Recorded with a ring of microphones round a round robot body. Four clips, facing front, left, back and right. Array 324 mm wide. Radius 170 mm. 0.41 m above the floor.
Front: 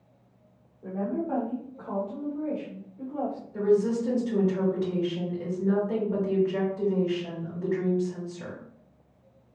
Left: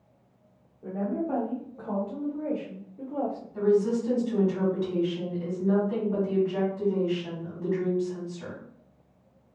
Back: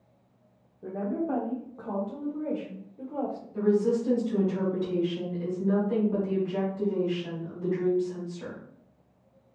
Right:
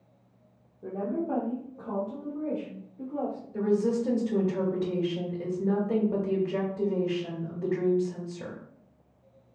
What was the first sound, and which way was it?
A woman speaking, 140° right.